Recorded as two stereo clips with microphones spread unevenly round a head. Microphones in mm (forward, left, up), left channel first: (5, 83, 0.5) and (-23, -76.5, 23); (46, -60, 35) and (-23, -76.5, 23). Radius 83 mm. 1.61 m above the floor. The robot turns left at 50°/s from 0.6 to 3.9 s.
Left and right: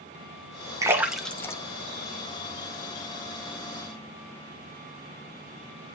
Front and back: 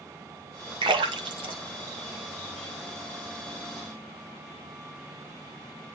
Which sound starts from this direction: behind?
A splash, at 0.8 s.